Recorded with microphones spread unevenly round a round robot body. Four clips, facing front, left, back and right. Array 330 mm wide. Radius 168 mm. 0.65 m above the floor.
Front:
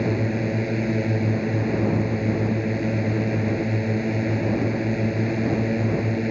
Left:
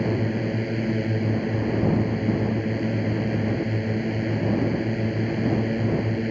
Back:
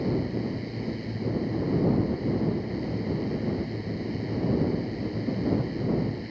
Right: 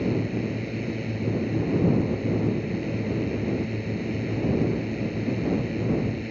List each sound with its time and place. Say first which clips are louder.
0.0 s a drone: left 2 dB, front 4 dB; 35° left